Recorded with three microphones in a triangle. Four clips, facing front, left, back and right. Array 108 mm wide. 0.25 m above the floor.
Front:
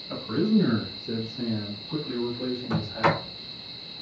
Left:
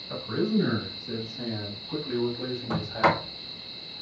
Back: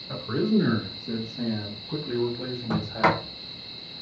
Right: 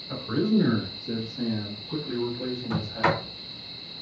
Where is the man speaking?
165° right, 2.5 m; by 3.2 s 105° left, 1.2 m.